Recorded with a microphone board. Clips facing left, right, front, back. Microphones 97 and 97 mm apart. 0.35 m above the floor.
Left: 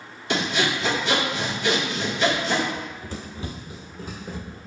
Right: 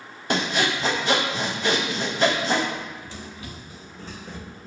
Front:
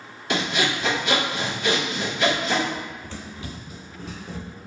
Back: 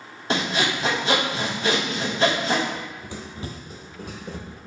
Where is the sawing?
130° right, 0.7 m.